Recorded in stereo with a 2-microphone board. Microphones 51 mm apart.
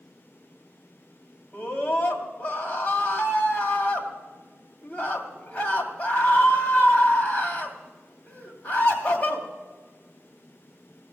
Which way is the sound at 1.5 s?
25° left (ahead or behind).